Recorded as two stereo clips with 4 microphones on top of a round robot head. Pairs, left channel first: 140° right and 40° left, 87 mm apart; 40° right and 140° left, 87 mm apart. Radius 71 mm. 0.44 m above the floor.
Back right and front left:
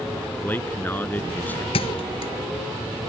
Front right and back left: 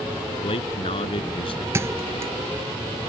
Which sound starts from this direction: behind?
A thud, at 1.7 s.